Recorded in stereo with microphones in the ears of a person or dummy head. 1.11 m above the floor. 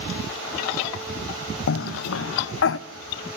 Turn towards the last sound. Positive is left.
turn(degrees=85)